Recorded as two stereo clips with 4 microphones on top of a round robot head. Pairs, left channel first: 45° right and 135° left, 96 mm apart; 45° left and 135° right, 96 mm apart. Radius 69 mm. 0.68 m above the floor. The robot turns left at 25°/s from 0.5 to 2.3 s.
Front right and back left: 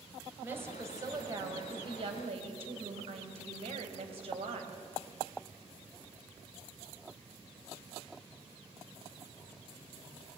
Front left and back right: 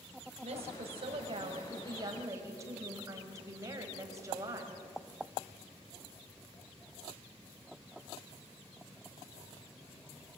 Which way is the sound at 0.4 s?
150° right.